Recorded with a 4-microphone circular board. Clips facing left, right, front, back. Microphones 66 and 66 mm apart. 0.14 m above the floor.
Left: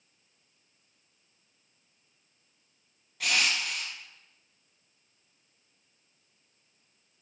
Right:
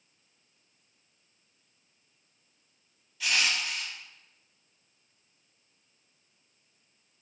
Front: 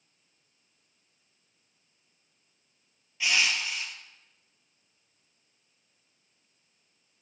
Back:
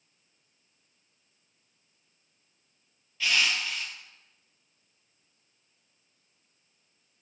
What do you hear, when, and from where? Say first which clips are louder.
3.2 s crushing: even, even; 75° left, 0.7 m